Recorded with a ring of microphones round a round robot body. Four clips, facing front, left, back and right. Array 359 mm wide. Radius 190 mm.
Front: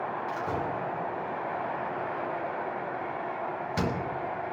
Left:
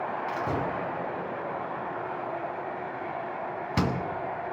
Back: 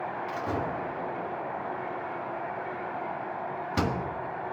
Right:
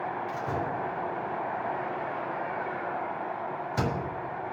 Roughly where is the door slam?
Behind left.